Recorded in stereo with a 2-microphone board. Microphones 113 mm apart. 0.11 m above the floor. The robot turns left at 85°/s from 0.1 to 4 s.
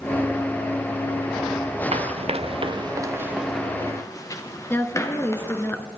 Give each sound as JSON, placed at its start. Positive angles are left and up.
{"t": 1.9, "sound": "running footsteps", "side_deg": -85, "distance_m": 0.9}
{"t": 4.7, "sound": "a woman speaking", "side_deg": 20, "distance_m": 1.4}